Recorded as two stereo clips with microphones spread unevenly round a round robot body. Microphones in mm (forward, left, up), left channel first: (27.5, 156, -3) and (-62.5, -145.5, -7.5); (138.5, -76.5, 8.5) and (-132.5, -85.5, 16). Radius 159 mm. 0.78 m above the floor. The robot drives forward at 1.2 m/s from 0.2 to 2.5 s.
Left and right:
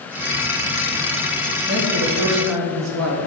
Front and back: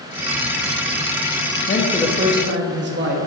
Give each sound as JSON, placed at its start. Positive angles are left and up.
{"t": 1.7, "sound": "a man speaking", "azimuth_deg": -45, "distance_m": 0.8}